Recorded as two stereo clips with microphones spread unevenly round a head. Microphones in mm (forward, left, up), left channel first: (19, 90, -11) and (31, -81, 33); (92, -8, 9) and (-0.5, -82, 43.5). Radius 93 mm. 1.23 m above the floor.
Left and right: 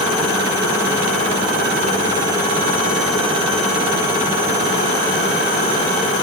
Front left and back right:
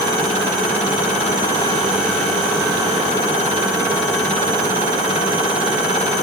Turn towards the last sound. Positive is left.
No sound to turn to.